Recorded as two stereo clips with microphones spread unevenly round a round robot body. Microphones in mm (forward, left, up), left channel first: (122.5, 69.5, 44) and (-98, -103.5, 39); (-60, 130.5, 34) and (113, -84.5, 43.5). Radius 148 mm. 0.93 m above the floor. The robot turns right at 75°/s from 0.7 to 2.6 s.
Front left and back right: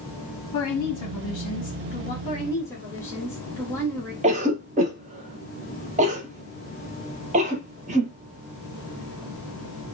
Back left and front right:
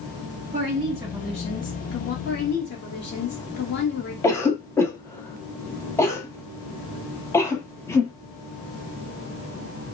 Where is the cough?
165° right, 0.8 m.